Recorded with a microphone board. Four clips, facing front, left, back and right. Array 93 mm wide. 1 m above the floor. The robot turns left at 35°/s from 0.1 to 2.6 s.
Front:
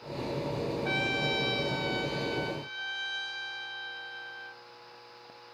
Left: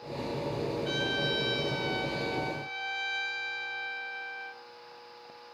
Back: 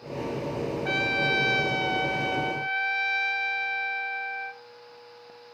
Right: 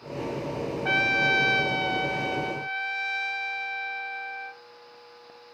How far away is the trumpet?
About 1.5 m.